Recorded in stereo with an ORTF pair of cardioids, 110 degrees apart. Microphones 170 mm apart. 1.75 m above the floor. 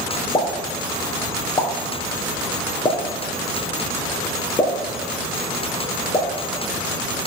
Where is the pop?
25° left, 1.5 m.